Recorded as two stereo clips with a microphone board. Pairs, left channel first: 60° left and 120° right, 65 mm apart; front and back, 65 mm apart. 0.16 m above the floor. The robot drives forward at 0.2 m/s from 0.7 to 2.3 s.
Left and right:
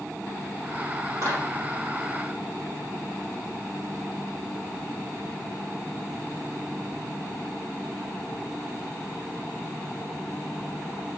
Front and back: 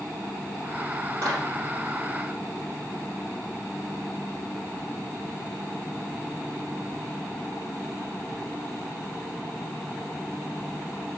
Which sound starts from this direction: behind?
A clap, at 1.2 s.